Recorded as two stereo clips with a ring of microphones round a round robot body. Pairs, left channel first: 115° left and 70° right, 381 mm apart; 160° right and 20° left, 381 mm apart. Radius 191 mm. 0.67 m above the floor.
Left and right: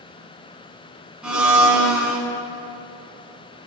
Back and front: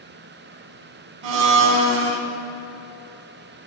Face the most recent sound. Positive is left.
turn(degrees=20)